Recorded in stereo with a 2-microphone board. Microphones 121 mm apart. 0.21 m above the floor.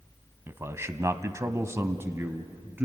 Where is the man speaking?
20° right (ahead or behind), 1.2 m.